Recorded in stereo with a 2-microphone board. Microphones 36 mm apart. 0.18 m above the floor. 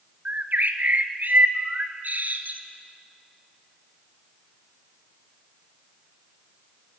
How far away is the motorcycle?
I don't hear a motorcycle.